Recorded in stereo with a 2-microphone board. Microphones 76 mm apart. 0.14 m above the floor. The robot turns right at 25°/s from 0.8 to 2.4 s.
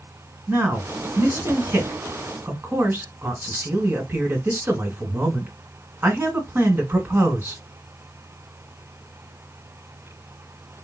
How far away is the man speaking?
About 1.7 m.